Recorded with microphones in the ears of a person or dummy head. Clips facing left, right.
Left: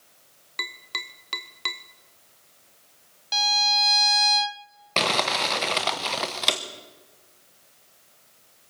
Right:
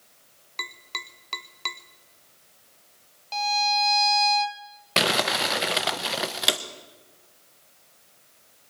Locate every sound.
0.6 s tapping: 5° left (ahead or behind), 0.7 m
3.3 s a violin: 20° left (ahead or behind), 0.6 m
5.0 s crumpling: 15° right (ahead or behind), 0.9 m